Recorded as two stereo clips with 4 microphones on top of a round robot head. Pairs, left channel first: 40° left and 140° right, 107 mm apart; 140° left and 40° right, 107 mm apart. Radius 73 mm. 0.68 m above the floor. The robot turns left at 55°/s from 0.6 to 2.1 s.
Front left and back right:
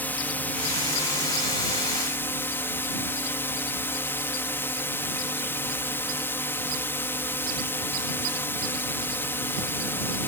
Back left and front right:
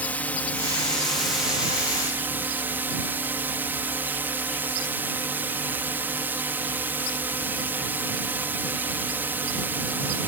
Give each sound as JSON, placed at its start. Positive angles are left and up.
{"t": 0.0, "sound": "a drone", "azimuth_deg": 85}